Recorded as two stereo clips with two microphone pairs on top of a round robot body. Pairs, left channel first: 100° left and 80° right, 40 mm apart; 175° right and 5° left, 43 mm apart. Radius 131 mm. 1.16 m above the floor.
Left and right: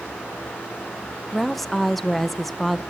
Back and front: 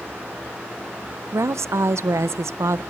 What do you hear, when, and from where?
1.3 s a woman speaking: 10° left, 0.5 m